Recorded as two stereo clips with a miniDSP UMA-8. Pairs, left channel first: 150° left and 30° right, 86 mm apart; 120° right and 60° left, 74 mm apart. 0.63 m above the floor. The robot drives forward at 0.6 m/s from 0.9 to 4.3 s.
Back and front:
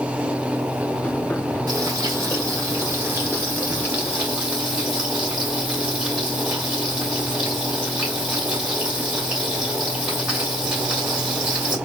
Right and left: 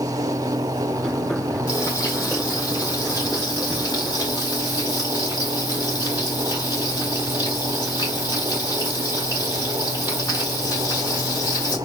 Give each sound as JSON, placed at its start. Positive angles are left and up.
{"t": 1.7, "sound": "frying", "azimuth_deg": -75, "distance_m": 3.0}